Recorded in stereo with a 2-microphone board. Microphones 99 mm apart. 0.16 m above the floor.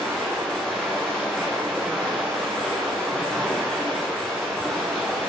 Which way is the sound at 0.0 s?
10° left (ahead or behind).